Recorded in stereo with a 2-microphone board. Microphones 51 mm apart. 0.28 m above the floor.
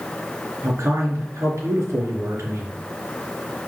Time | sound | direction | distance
0.6 | a man speaking | 65° right (ahead or behind) | 4 m